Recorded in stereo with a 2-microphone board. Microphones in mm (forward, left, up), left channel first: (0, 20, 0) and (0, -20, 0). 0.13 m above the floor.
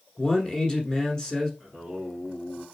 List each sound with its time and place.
0.2 s a man speaking: 20° left (ahead or behind), 1.2 m
1.6 s singing: centre (ahead or behind), 1.8 m